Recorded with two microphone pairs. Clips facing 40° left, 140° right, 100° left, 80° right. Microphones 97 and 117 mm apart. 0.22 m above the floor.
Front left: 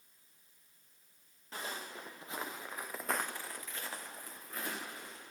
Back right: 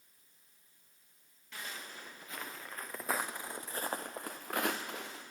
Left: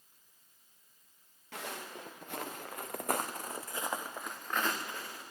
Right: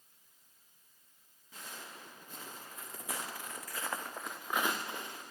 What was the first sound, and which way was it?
Footsteps, 95° left.